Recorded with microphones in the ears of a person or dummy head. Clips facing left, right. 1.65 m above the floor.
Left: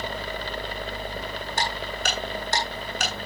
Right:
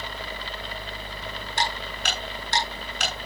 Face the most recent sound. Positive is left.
turn(degrees=45)  # may be behind; listen again after turning